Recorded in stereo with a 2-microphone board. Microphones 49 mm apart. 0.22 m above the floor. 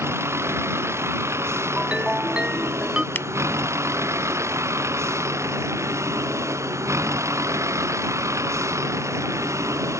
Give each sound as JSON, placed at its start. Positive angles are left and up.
{"t": 0.0, "sound": "a vehicle", "side_deg": -60}
{"t": 1.8, "sound": "a ringtone", "side_deg": -20}
{"t": 3.1, "sound": "a finger snap", "side_deg": 45}